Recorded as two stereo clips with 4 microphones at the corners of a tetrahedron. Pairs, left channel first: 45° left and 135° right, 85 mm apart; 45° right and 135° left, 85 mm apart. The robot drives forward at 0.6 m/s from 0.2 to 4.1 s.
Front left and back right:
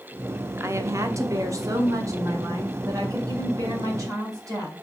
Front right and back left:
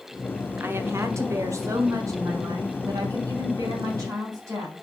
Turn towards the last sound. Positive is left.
turn(degrees=180)